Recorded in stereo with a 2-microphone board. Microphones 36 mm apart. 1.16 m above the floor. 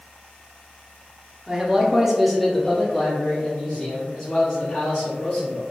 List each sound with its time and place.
1.5 s a man speaking: 20° right (ahead or behind), 0.8 m; by 5.6 s 25° left (ahead or behind), 2.5 m